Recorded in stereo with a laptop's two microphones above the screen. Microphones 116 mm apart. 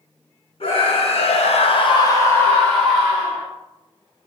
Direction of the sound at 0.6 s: 55° left (ahead or behind).